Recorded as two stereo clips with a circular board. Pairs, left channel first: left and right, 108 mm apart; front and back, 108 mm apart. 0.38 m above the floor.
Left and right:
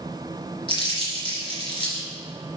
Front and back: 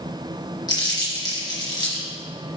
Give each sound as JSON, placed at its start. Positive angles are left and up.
{"t": 0.7, "sound": "crumpling", "azimuth_deg": 50, "distance_m": 3.5}